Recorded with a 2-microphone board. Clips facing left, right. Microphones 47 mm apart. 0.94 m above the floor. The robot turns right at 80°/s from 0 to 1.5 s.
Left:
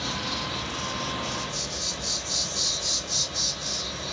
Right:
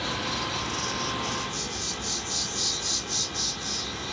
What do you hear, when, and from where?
0.0 s an insect: 165° right, 3 m; by 4.1 s 45° right, 3 m